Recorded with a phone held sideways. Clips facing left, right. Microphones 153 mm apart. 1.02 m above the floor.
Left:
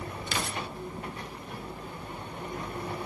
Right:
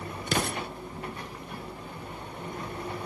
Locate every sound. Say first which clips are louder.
0.3 s an explosion: right 6 dB; 50° right (ahead or behind), 0.7 m